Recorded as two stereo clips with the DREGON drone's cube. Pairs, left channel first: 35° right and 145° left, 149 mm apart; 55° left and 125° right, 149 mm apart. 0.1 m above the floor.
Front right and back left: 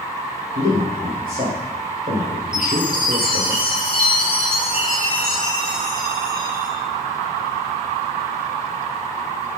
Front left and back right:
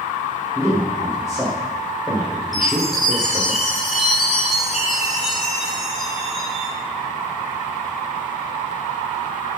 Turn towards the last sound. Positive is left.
turn(degrees=145)